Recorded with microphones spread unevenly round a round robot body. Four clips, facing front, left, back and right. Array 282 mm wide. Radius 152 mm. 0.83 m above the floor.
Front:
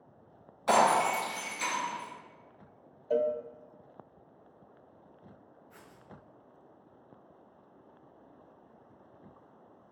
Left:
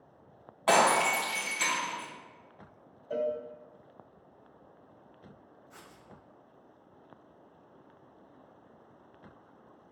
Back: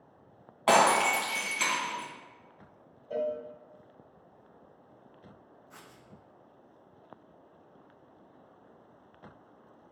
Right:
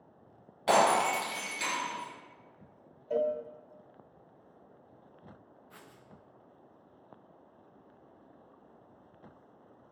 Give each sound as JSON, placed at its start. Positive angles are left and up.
{"t": 0.7, "sound": "breaking glass", "azimuth_deg": 180, "distance_m": 2.0}
{"t": 3.1, "sound": "a cowbell", "azimuth_deg": 0, "distance_m": 0.7}
{"t": 5.7, "sound": "writing", "azimuth_deg": -140, "distance_m": 1.1}